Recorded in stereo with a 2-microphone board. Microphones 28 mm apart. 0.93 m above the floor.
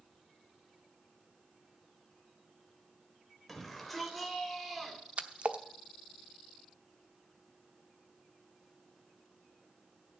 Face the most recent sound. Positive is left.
turn(degrees=-50)  # may be behind; listen again after turning